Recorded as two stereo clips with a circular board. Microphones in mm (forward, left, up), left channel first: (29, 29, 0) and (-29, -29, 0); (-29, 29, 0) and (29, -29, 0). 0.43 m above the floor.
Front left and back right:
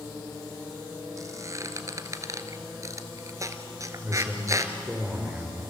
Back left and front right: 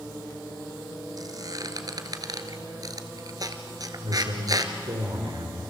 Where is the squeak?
85° right, 1.6 m.